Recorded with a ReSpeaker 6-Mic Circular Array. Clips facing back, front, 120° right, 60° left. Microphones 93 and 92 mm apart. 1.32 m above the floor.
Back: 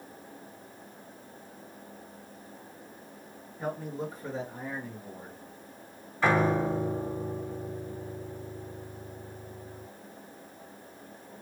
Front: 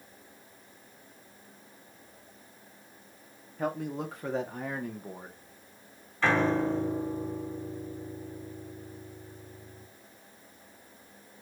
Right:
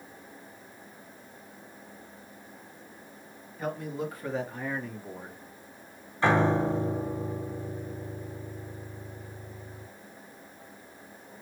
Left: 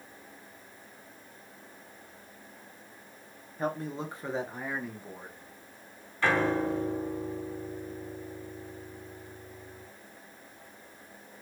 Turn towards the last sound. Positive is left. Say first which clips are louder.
# back 1 dB, right 3 dB
turn(degrees=-120)